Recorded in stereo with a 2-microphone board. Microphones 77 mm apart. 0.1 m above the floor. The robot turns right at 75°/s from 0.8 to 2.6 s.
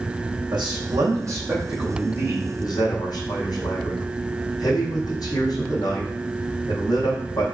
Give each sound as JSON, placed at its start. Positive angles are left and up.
{"t": 0.5, "sound": "a man speaking", "azimuth_deg": -80, "distance_m": 3.5}